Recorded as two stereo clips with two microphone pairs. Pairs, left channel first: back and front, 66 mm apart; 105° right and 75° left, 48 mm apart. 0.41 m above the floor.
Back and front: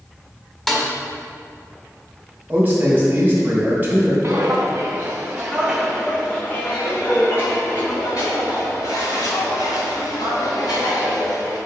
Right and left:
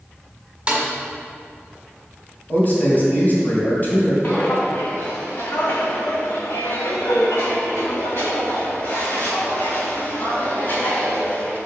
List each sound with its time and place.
0.7 s a snare drum: 105° left, 1.4 m
2.5 s a man speaking: 60° right, 2 m
4.2 s footsteps: 50° right, 1.6 m; by 11.6 s 165° right, 4 m